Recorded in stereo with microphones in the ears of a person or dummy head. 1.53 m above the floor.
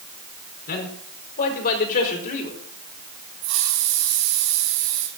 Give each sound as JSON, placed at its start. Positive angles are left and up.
{"t": 0.7, "sound": "a man speaking", "side_deg": 60, "distance_m": 4.0}
{"t": 3.4, "sound": "a hiss", "side_deg": -70, "distance_m": 4.0}